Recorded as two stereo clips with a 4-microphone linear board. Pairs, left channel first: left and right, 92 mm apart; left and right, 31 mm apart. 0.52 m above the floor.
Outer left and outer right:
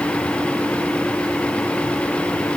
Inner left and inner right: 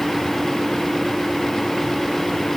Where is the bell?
No bell in this recording.